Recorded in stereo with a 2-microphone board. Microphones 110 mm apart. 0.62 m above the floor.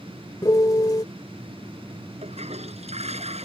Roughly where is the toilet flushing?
Right.